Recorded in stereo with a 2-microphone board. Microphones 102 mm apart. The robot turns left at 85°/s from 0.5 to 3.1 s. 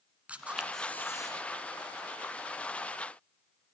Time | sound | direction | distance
0.3 | a camera shutter | 165° right | 1.9 m